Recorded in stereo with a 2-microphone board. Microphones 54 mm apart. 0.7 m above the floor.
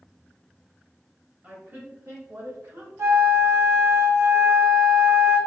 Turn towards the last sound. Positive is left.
turn(degrees=-65)  # may be behind; listen again after turning